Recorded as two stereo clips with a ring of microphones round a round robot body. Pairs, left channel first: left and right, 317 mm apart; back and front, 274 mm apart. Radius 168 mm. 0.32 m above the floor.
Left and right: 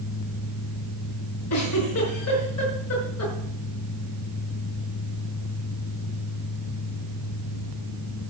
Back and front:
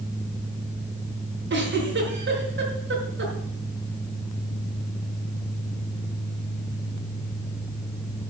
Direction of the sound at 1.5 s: 45° left.